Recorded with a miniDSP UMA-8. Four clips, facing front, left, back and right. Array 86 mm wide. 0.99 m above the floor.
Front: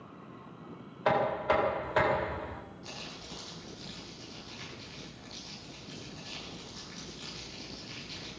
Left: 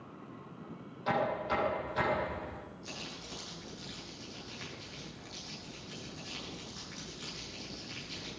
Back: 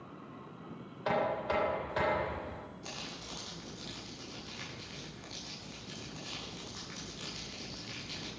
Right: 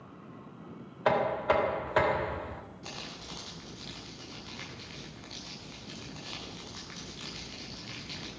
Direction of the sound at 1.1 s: 60° right.